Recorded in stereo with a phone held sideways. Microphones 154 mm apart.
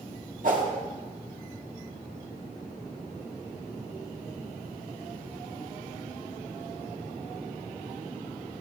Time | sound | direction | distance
0.4 | a whoosh | 65° right (ahead or behind) | 1.8 m